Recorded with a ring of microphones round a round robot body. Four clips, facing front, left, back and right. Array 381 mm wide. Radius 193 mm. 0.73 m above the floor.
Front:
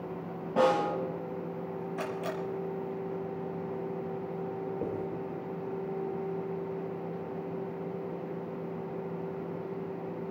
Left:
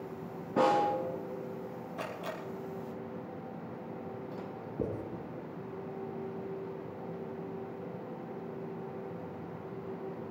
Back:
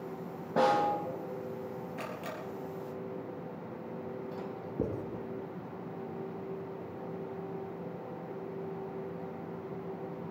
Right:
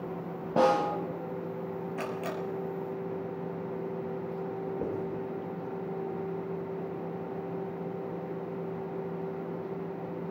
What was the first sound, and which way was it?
A snare drum, 100° right.